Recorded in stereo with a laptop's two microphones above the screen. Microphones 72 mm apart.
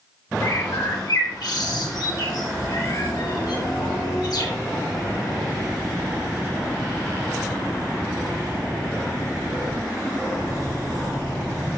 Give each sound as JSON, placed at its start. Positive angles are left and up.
{"t": 0.4, "sound": "a bird", "side_deg": 60, "distance_m": 1.3}